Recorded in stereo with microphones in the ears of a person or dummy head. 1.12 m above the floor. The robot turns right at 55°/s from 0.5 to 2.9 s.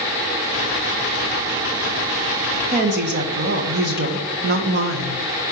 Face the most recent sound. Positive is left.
turn(degrees=-45)  # may be behind; listen again after turning